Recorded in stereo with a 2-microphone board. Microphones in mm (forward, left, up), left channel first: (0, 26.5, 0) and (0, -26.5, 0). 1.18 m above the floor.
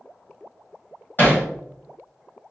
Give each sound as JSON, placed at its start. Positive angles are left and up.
{"t": 1.2, "sound": "hammering", "side_deg": 40, "distance_m": 1.9}